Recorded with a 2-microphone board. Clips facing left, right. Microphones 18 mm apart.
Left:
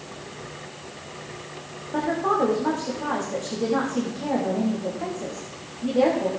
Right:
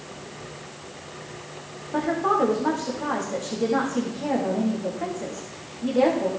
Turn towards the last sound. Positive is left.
turn(degrees=-10)  # may be behind; listen again after turning